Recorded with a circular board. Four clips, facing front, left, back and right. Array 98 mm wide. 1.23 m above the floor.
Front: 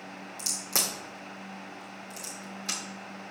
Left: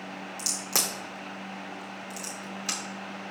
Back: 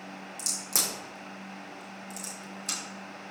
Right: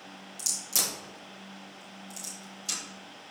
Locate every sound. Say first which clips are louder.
0.4 s a crack: left 4 dB, front 2 dB; 75° left, 2.5 m